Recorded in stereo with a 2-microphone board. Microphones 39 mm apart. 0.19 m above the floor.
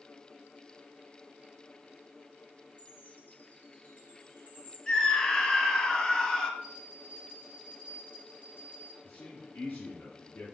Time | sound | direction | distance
2.8 | a chime | 40° left (ahead or behind) | 2.5 m
4.9 | a scream | 15° left (ahead or behind) | 1.2 m
6.6 | a bell | 55° left (ahead or behind) | 3.5 m
9.0 | a man speaking | 40° left (ahead or behind) | 2 m